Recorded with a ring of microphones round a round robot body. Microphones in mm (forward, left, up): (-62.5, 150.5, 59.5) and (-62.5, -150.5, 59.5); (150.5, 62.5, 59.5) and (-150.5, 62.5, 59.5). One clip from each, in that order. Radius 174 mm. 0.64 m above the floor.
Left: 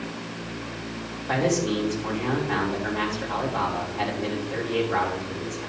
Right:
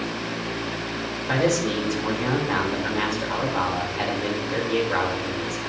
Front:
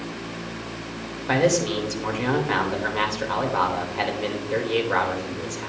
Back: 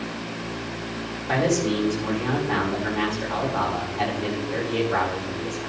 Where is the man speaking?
15° right, 3 m.